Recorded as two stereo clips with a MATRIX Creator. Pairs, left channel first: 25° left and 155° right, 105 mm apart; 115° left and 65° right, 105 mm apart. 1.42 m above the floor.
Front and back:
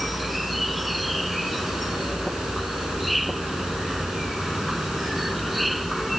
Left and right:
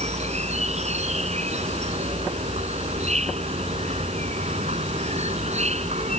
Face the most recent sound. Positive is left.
turn(degrees=-70)